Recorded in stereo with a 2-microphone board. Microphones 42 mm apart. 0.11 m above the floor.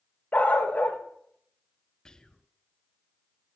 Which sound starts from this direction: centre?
Whispering, at 2.0 s.